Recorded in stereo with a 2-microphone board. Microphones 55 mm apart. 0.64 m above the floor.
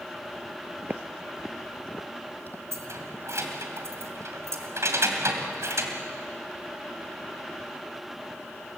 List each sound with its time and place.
0.8 s footsteps: 45° right (ahead or behind), 0.8 m; by 2.6 s 40° left (ahead or behind), 1.4 m
2.7 s keys jangling: 65° right (ahead or behind), 2.5 m